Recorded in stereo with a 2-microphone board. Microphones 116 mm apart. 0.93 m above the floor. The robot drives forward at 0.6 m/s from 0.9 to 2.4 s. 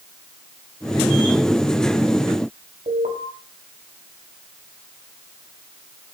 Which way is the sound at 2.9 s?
80° right.